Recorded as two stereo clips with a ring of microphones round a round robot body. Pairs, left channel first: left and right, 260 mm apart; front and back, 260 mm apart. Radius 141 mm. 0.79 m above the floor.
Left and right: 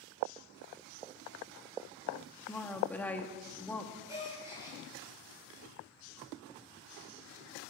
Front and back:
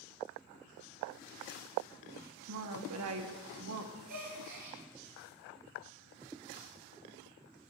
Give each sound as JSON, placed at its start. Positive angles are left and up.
{"t": 2.4, "sound": "a woman speaking", "azimuth_deg": 175, "distance_m": 1.5}
{"t": 4.1, "sound": "a gasp", "azimuth_deg": -170, "distance_m": 6.5}